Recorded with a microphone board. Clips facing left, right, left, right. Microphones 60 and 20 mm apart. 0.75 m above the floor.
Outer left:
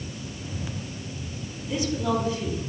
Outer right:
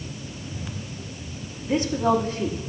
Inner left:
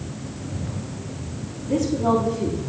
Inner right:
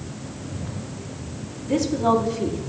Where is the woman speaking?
45° right (ahead or behind), 1.6 m.